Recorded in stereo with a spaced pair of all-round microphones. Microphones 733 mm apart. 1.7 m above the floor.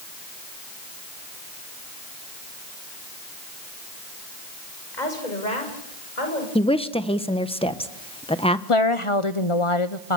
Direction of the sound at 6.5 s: 10° left (ahead or behind).